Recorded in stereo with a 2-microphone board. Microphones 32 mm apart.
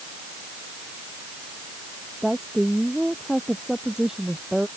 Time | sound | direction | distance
2.2 | a woman speaking | 15° right (ahead or behind) | ?